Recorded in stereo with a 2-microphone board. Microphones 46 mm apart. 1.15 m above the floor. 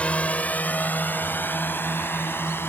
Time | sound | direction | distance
0.0 | a drone | 30° left (ahead or behind) | ?